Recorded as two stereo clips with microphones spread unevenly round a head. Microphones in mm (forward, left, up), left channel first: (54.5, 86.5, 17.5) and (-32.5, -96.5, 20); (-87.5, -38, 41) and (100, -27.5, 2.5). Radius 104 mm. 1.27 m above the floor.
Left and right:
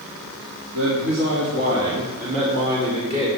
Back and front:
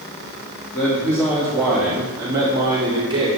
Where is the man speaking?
95° right, 3.5 m; by 3.3 s 60° right, 4.5 m.